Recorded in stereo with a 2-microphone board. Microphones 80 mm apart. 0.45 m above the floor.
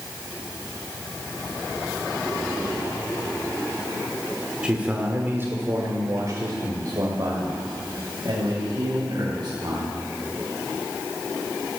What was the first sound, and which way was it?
A man speaking, 15° right (ahead or behind).